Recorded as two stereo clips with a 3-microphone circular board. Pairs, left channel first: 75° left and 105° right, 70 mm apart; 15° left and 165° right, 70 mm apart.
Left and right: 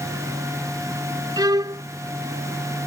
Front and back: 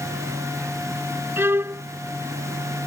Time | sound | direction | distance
1.4 | a violin | 115° right | ?